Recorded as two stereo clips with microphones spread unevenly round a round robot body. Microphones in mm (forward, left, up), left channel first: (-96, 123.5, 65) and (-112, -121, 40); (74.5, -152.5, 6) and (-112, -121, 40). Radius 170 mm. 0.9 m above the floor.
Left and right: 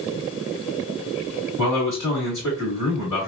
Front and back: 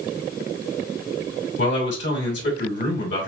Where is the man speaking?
15° right, 2.5 m.